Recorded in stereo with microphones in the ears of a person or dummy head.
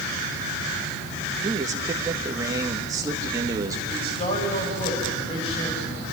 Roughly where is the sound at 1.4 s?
Centre.